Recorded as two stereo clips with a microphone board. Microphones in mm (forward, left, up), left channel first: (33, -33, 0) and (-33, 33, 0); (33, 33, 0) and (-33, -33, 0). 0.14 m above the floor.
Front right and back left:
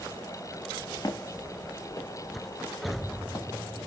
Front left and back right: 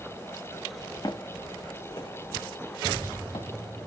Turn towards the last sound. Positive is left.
turn(degrees=20)